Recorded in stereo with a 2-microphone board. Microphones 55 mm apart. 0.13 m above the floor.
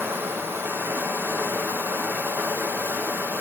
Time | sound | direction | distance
0.0 | running water | 45° right (ahead or behind) | 1.1 m